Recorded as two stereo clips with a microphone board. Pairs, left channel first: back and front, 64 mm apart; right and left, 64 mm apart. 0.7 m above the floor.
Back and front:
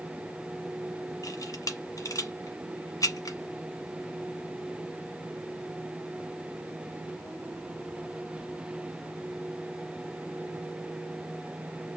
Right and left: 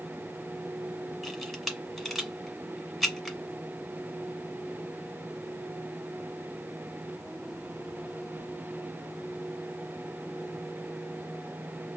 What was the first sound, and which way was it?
A camera shutter, 175° right.